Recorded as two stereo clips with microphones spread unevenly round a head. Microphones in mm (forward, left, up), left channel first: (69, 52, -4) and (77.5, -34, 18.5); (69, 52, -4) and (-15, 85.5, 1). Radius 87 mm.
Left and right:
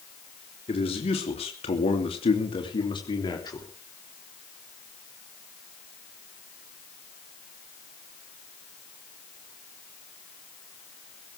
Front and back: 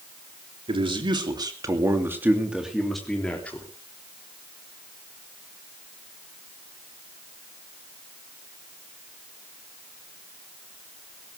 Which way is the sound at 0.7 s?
130° left.